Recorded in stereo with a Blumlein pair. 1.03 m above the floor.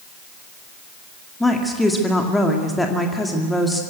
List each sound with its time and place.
1.4 s a woman speaking: 5° left, 2 m